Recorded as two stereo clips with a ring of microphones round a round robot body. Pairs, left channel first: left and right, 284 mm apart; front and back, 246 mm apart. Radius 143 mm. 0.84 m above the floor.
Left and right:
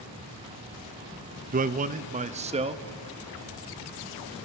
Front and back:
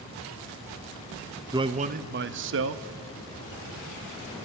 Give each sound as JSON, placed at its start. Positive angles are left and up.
{"t": 1.5, "sound": "a man speaking", "azimuth_deg": -115, "distance_m": 0.7}